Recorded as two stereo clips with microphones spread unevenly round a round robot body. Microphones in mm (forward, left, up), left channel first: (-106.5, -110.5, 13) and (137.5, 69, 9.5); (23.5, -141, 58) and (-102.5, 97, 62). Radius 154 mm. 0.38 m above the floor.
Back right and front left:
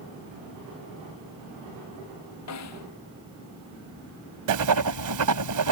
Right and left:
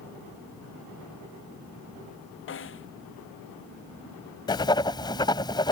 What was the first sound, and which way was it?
A snare drum, 105° right.